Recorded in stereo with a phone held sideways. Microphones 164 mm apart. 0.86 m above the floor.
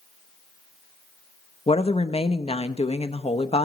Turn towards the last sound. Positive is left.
turn(degrees=40)  # may be behind; listen again after turning